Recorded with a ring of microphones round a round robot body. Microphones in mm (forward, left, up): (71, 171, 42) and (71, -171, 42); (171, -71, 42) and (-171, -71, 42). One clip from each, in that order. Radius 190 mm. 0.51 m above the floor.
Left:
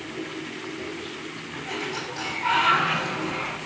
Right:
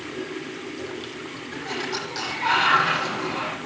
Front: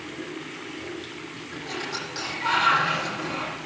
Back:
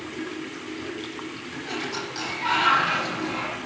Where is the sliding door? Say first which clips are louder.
Right 2 dB, back 1 dB; 85° right, 9 m.